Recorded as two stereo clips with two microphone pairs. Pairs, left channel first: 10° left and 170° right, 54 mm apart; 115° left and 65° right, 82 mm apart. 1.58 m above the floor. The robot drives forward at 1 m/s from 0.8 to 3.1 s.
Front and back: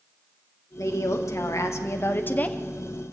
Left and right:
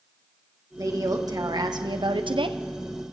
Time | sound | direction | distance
0.8 | a woman speaking | 20° right | 2.5 m